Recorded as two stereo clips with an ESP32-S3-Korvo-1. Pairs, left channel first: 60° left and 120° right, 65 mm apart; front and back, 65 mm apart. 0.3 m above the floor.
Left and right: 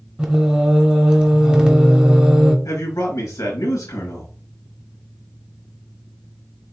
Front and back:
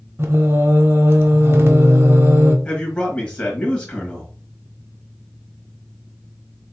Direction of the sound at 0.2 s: 175° left.